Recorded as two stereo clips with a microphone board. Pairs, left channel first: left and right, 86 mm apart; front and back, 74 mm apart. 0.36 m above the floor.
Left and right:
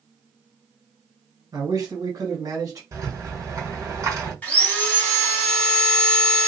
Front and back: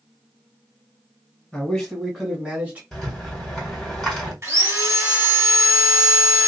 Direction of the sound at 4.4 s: 150° left.